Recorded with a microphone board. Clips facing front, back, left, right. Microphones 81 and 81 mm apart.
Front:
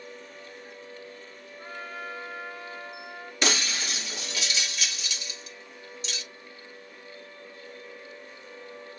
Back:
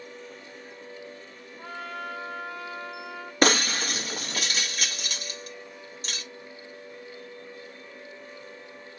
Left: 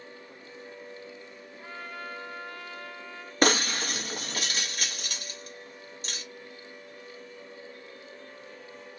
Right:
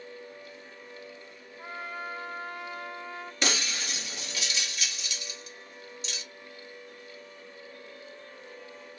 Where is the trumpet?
155° right, 2.5 m.